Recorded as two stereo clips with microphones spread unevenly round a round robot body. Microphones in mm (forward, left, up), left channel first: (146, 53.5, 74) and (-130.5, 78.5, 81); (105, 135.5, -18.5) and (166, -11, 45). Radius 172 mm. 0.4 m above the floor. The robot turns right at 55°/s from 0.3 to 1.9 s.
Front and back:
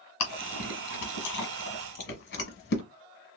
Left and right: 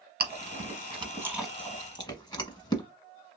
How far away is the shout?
I don't hear a shout.